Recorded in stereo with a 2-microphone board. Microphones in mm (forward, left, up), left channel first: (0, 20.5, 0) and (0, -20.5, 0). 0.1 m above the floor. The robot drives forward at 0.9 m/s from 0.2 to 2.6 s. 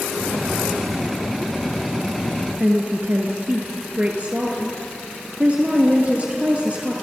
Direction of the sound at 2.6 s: 35° right (ahead or behind).